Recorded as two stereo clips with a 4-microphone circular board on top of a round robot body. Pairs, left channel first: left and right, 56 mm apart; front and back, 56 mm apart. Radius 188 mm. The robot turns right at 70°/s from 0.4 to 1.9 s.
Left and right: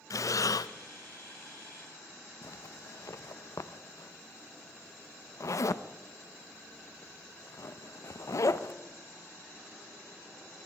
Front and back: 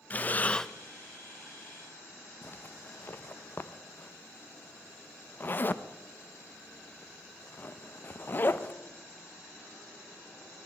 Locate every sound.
0.1 s breathing: 65° left, 0.6 m; by 0.7 s 80° left, 0.6 m
2.4 s a zipper: 55° left, 0.7 m